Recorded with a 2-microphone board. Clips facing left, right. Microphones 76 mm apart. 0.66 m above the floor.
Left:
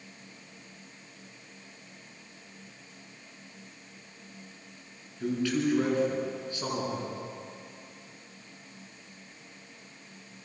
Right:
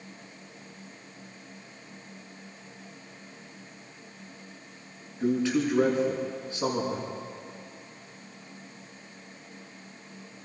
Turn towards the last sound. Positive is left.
turn(degrees=-20)  # may be behind; listen again after turning